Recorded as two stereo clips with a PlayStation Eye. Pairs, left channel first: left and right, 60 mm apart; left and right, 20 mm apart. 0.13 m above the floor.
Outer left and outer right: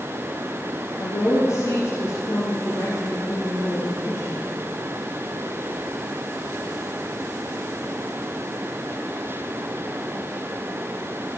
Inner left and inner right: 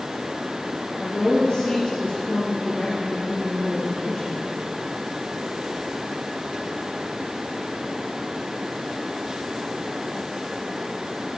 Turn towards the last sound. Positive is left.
turn(degrees=65)  # may be behind; listen again after turning